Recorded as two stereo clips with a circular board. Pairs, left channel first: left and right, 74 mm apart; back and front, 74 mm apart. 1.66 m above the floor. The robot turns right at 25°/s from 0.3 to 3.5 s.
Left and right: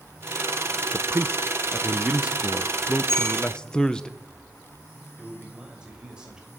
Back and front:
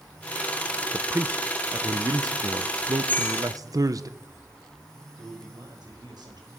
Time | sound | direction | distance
0.9 | a man speaking | 50° right | 0.9 m
3.1 | a bell | 115° left | 5.5 m
5.2 | a man speaking | 10° right | 6 m